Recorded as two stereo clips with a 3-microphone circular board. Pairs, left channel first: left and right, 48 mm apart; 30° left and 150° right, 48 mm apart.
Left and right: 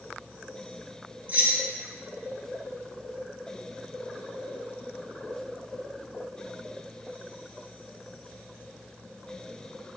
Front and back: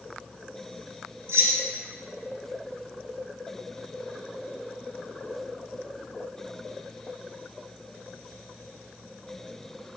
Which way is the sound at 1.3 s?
140° right.